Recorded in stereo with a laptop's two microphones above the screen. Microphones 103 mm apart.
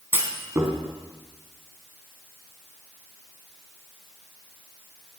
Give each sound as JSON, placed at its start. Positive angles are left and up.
{"t": 0.1, "sound": "a clunk", "side_deg": -20, "distance_m": 3.5}